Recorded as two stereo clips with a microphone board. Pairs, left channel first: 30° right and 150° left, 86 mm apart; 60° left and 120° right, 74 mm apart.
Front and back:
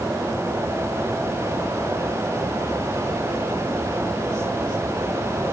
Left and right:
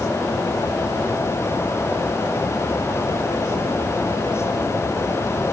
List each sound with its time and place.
Only background noise.